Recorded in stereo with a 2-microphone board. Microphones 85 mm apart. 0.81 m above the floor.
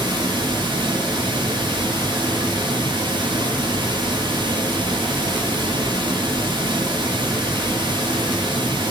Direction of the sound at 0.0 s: 70° right (ahead or behind).